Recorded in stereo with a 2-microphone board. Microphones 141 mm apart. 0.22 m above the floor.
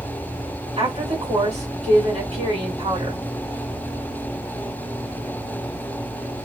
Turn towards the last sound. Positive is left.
turn(degrees=-45)  # may be behind; listen again after turning